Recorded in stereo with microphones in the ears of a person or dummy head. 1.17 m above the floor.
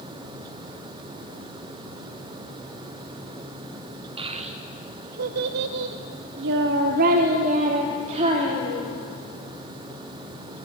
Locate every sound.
4.2 s a child speaking: 35° right (ahead or behind), 1.1 m; by 8.9 s 30° right (ahead or behind), 1.8 m